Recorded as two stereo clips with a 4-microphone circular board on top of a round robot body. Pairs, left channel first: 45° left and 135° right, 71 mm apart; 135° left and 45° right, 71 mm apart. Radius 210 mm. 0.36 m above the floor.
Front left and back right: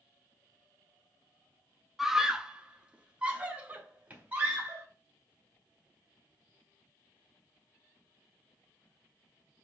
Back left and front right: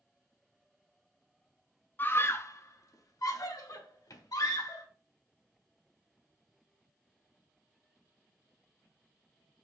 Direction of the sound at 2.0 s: 145° left.